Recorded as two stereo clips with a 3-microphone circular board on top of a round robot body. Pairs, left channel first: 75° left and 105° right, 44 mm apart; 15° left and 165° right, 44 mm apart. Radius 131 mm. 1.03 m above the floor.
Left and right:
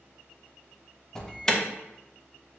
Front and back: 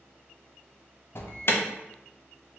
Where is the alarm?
Straight ahead, 0.8 m.